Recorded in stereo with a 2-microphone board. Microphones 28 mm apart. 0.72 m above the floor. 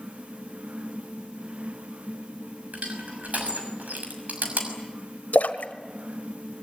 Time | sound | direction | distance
2.7 | crushing | 75° right (ahead or behind) | 6 m
5.3 | a splash | 85° left | 1.5 m